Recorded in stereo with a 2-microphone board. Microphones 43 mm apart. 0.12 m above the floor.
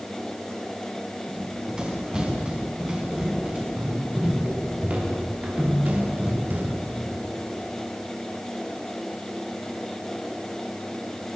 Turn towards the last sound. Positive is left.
turn(degrees=-45)  # may be behind; listen again after turning